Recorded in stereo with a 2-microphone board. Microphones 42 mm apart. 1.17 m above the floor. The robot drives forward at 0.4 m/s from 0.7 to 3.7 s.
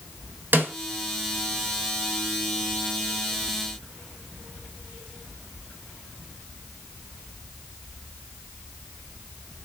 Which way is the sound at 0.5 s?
50° right (ahead or behind).